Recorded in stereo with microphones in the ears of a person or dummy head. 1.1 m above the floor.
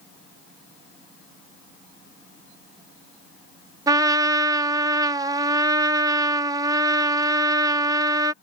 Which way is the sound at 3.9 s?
20° right (ahead or behind).